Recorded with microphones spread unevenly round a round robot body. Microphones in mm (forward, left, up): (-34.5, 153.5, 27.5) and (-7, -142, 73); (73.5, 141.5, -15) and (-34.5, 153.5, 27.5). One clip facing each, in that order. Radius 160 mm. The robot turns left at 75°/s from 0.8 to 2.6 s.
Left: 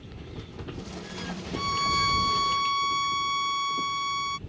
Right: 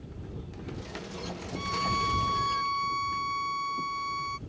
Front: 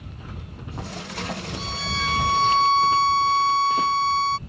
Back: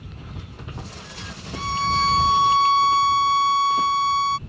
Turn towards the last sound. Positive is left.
turn(degrees=65)